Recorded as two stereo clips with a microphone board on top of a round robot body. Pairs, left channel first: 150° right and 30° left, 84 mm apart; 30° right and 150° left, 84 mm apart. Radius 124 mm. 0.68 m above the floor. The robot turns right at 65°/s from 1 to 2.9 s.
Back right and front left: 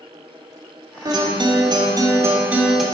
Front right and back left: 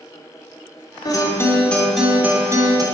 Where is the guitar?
Straight ahead, 1.9 m; by 2.8 s 115° left, 1.9 m.